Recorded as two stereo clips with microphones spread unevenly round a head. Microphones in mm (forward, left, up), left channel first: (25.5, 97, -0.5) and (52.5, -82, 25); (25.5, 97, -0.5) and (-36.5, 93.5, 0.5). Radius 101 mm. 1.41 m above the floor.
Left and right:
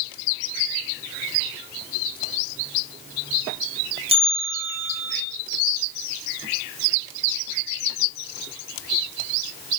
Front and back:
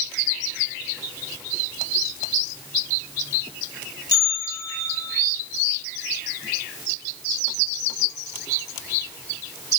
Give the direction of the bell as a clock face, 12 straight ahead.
1 o'clock.